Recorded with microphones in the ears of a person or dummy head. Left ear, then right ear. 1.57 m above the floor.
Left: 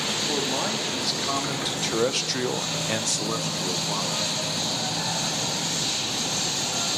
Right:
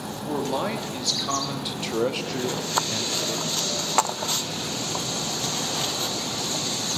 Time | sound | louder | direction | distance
0.3 | a man speaking | left 1 dB | 15° right (ahead or behind) | 3.5 m